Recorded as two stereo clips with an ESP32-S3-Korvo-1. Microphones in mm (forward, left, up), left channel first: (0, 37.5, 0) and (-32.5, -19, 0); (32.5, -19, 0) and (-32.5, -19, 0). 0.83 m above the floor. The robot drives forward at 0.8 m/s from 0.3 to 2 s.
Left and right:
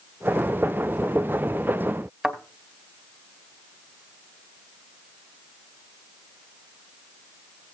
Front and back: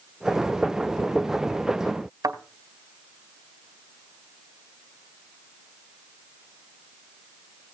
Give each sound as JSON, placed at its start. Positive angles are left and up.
{"t": 2.2, "sound": "a thud", "azimuth_deg": 155, "distance_m": 2.5}